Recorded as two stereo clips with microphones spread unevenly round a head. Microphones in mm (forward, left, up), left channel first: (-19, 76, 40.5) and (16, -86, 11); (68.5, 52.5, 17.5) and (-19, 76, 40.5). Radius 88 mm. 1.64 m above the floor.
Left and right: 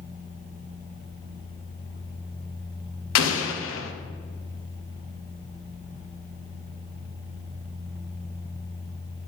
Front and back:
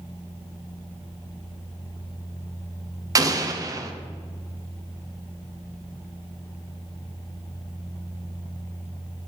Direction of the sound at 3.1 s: 115° left.